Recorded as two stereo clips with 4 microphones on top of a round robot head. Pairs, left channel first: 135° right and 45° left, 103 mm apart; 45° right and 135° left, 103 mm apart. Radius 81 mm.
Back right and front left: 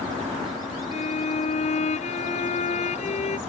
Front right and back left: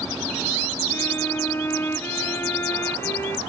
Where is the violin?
115° right.